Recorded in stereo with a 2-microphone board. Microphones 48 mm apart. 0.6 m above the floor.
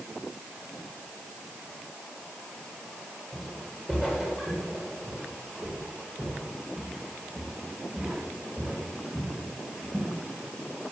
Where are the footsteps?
15° right (ahead or behind), 8 m.